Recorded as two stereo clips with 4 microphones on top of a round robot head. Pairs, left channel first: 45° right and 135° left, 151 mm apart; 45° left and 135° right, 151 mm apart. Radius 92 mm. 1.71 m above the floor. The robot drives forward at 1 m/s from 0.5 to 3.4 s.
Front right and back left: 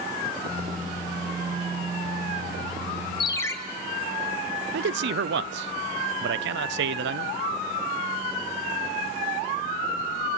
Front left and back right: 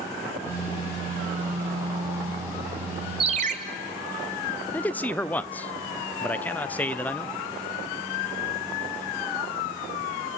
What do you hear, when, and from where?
3.2 s a ringtone: 90° right, 0.8 m; by 3.5 s 115° right, 0.8 m
4.7 s a man speaking: 130° left, 0.6 m